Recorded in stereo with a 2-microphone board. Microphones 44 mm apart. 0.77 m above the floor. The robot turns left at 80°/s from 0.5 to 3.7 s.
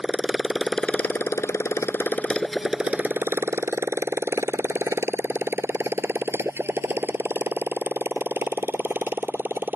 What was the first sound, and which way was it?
A motorcycle, 15° right (ahead or behind).